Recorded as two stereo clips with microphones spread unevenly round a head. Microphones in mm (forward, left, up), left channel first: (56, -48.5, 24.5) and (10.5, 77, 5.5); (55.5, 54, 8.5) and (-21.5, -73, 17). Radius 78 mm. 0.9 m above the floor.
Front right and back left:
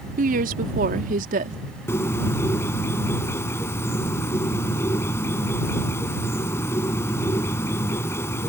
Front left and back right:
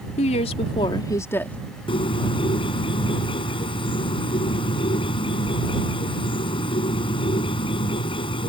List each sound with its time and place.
0.2 s a woman speaking: 105° left; by 1.6 s 140° left
1.9 s a bird: straight ahead